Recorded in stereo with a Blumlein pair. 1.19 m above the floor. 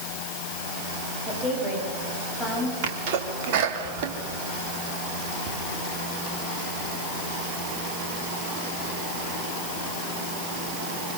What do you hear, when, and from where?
1.2 s a woman speaking: 5° right, 9 m
2.8 s a sneeze: 50° right, 3 m